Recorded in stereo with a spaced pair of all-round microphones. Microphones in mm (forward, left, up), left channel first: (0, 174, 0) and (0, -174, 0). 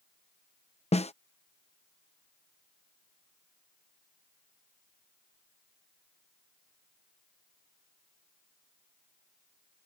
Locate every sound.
0.9 s a snare drum: 20° left (ahead or behind)